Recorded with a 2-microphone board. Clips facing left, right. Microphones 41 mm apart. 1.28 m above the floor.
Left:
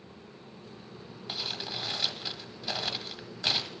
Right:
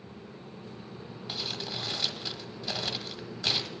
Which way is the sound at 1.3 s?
10° left (ahead or behind).